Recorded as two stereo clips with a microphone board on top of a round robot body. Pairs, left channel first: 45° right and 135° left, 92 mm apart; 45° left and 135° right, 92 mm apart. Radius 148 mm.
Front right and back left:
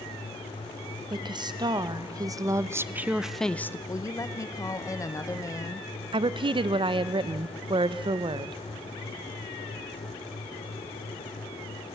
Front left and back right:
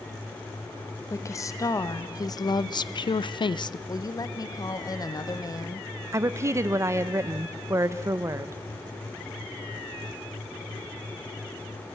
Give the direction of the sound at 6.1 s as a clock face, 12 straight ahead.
7 o'clock.